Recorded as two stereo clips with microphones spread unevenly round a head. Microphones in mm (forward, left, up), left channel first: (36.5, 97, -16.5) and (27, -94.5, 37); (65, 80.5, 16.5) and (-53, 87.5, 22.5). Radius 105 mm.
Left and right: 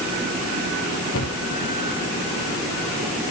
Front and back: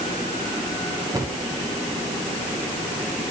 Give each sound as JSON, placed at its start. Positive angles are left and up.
{"t": 1.1, "sound": "a cupboard door", "azimuth_deg": 120, "distance_m": 2.0}